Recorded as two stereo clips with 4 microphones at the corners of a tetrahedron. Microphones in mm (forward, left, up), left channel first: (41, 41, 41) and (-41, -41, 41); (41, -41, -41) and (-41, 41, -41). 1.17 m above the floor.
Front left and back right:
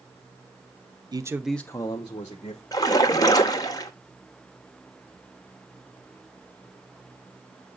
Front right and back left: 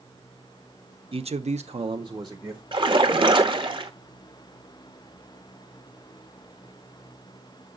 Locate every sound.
1.1 s a man speaking: 170° left, 0.6 m; by 2.6 s 75° left, 1.1 m
2.7 s a splash: 100° left, 1.1 m